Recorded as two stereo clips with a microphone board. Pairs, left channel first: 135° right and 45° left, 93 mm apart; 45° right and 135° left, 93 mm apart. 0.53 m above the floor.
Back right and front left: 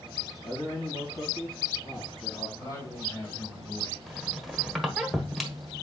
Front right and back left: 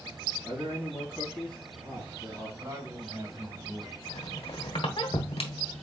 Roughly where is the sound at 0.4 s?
Behind right.